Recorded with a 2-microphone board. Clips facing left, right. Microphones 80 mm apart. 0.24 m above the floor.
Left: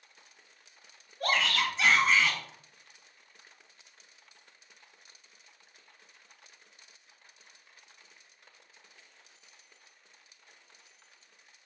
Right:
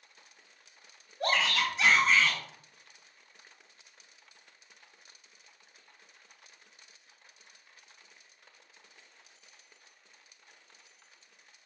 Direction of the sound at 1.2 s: 20° right (ahead or behind).